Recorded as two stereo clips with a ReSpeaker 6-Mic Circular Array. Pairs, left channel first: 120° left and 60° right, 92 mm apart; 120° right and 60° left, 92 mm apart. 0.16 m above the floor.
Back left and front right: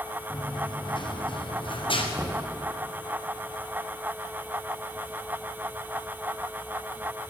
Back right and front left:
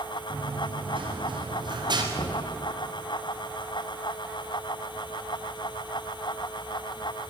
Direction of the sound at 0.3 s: 80° left.